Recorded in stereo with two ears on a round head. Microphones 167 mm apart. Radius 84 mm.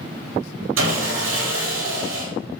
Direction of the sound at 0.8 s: 85° right.